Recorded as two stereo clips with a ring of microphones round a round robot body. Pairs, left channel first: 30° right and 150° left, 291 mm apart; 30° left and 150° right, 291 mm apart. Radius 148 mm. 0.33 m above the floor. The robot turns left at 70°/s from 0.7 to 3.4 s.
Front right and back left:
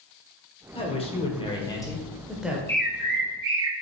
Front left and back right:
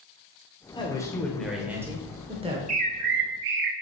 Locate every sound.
0.7 s a man speaking: 10° right, 1.0 m; by 2.6 s 140° right, 1.0 m
2.7 s a bird: 115° right, 0.7 m; by 3.7 s 165° right, 0.7 m